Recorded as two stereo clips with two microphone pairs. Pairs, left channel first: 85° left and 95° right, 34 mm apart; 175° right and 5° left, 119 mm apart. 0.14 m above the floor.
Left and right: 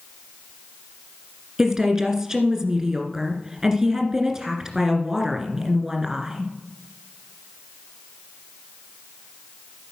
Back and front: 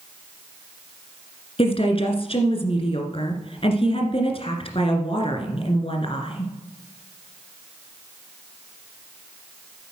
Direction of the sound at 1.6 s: 165° right.